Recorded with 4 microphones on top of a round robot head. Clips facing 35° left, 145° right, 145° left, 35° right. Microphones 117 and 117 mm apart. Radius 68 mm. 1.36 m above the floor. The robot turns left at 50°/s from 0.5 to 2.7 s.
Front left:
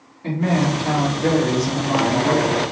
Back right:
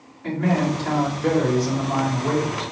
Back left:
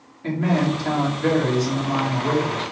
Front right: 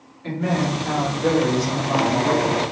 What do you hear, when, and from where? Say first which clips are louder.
0.2 s a man speaking: front left 1 dB, back left 2 dB; 95° left, 1.6 m; by 2.7 s 15° right, 1.6 m